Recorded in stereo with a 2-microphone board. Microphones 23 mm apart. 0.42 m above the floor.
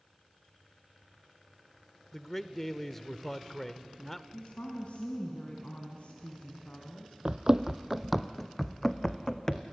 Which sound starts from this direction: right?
Running footsteps, at 7.2 s.